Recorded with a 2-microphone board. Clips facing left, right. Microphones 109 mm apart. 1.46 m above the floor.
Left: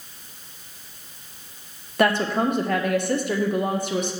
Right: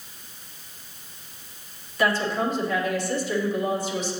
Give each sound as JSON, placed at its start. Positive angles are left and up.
{"t": 2.0, "sound": "a woman speaking", "side_deg": 60, "distance_m": 0.9}